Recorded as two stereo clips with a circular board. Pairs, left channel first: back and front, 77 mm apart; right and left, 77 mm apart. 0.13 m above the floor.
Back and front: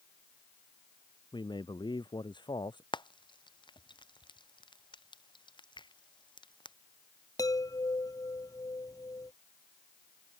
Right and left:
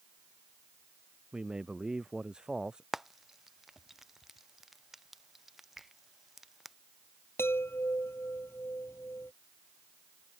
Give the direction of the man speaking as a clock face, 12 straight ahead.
6 o'clock.